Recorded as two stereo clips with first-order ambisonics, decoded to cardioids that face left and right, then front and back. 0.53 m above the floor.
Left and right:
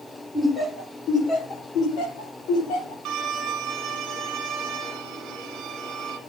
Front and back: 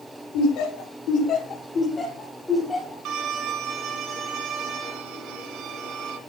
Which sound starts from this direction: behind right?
A violin, at 3.0 s.